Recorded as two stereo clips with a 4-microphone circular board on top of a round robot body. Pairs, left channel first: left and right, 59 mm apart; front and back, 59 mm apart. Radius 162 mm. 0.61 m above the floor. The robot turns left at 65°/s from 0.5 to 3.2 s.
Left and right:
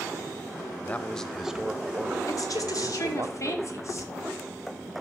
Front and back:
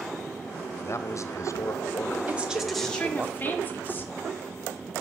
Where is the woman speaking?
120° left, 2.5 m; by 4.1 s 60° left, 2.5 m.